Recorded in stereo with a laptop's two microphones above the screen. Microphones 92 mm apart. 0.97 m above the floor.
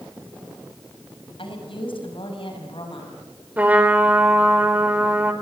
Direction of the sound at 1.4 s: 70° left (ahead or behind).